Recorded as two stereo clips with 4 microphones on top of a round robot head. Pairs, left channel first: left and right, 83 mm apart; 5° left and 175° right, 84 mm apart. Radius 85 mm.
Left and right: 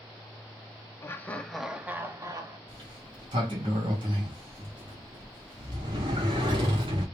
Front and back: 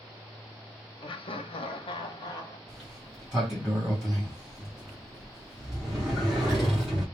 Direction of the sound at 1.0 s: 30° left.